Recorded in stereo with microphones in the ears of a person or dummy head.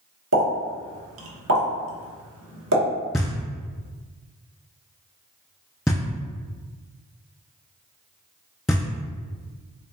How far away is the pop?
About 1.1 m.